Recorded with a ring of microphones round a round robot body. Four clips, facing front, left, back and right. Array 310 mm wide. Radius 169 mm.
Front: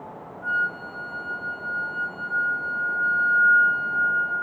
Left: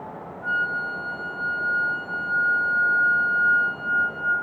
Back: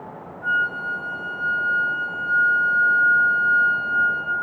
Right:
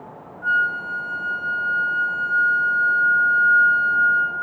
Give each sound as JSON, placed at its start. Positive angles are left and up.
{"t": 0.4, "sound": "a flute", "azimuth_deg": -125, "distance_m": 1.3}